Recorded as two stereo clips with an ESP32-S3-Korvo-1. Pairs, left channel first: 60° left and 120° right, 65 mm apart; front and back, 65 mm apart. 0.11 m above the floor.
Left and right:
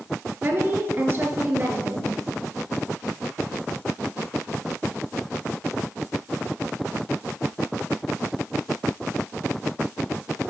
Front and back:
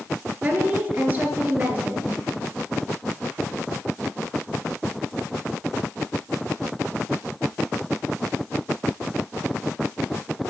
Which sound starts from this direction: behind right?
A woman speaking, at 0.4 s.